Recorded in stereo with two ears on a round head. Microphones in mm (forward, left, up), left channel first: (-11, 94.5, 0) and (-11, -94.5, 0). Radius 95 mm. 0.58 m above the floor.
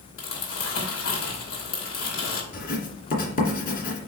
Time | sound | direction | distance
0.2 | crumpling | 65° left (ahead or behind) | 2.5 m
2.5 | writing | 45° left (ahead or behind) | 2 m